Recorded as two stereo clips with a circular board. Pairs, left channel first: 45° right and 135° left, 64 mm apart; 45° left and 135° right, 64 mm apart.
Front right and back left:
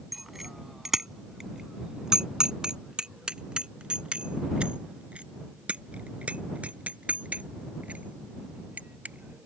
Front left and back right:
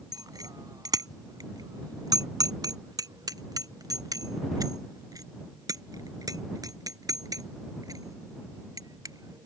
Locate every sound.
0.1 s a bicycle bell: 135° right; by 9.5 s 160° right